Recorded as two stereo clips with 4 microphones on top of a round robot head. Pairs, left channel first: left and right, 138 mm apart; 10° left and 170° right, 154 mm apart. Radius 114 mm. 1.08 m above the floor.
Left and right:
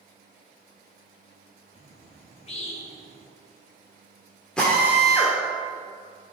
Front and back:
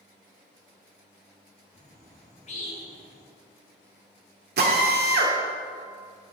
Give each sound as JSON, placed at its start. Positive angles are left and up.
{"t": 1.7, "sound": "a bird", "azimuth_deg": 50, "distance_m": 3.0}
{"t": 4.6, "sound": "a drill", "azimuth_deg": 175, "distance_m": 1.6}